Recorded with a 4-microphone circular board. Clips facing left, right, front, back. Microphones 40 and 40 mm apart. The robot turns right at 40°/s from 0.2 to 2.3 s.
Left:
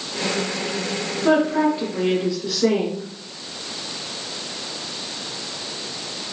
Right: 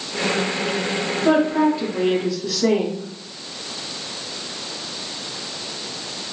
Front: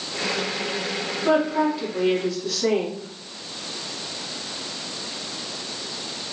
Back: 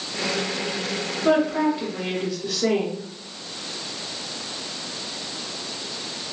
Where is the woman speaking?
100° left, 1.4 m; by 3.1 s 140° left, 1.4 m.